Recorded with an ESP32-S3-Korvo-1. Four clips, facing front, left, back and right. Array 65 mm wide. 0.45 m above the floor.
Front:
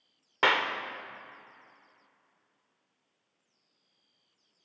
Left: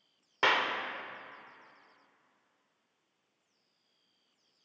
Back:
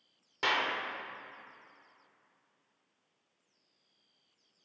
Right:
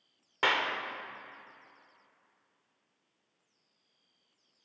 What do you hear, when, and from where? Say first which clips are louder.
0.4 s a clap: left 1 dB, front 5 dB; 10° left, 0.8 m